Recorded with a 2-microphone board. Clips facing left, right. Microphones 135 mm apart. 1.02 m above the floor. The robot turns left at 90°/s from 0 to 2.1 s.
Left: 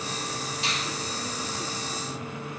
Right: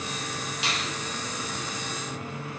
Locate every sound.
0.6 s a finger snap: 80° right, 6.5 m; by 0.9 s 75° right (ahead or behind), 6.5 m